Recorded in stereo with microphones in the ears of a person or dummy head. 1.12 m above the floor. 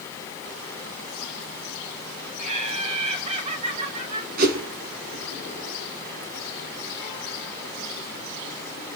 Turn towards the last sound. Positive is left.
turn(degrees=-55)  # may be behind; listen again after turning